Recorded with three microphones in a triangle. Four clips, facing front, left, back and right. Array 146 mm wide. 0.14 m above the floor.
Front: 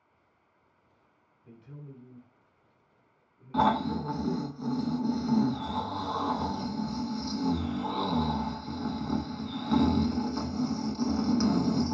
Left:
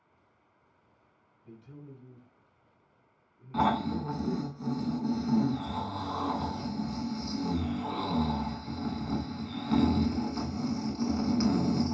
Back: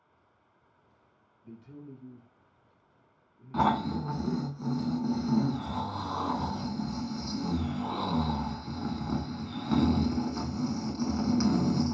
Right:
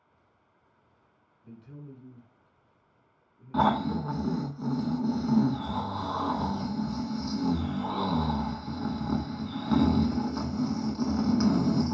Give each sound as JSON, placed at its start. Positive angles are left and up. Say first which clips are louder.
{"t": 1.4, "sound": "a man speaking", "louder": "right 2 dB, back 2 dB", "azimuth_deg": -50, "distance_m": 1.4}
{"t": 3.5, "sound": "snoring", "louder": "right 2 dB, front 1 dB", "azimuth_deg": -95, "distance_m": 0.6}